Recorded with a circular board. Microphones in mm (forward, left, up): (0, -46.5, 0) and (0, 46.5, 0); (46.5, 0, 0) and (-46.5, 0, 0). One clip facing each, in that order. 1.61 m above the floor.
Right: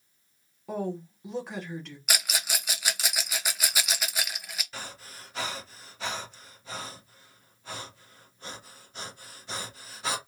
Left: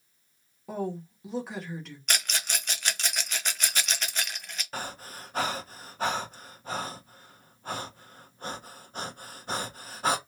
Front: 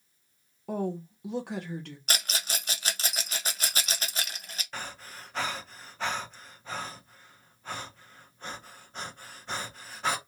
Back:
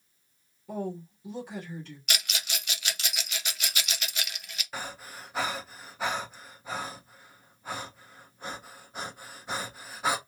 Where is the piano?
No piano in this recording.